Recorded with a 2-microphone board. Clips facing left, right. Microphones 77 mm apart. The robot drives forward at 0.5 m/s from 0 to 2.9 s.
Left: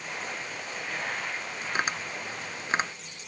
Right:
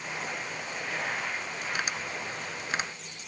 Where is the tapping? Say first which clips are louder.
Left 4 dB; 35° left (ahead or behind); by 2.9 s 30° left (ahead or behind).